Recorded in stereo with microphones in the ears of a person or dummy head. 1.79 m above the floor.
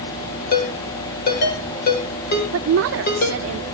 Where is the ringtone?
50° left (ahead or behind), 4 m.